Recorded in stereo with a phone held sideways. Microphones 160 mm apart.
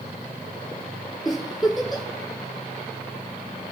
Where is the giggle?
5° right (ahead or behind), 4 m.